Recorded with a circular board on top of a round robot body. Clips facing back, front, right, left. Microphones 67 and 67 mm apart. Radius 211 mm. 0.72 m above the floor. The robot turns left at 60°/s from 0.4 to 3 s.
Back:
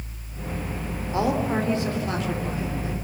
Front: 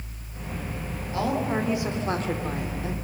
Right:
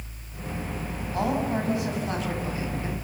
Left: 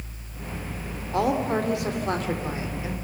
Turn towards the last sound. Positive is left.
turn(degrees=5)